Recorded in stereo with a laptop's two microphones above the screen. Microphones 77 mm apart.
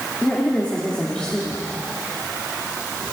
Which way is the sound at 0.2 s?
15° left (ahead or behind).